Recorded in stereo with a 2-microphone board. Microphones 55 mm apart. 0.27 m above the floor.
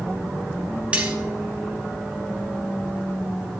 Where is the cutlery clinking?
20° right (ahead or behind), 1.0 m.